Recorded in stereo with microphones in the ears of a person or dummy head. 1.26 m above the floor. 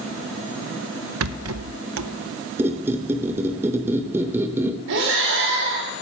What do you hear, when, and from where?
1.2 s a rattle: 75° right (ahead or behind), 0.8 m
2.6 s a squeak: 10° right (ahead or behind), 1.0 m
4.9 s breathing: 65° right (ahead or behind), 3.5 m